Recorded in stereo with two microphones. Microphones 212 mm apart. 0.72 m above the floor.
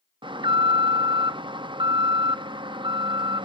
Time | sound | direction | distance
0.2 | an alarm | 20° right (ahead or behind) | 0.5 m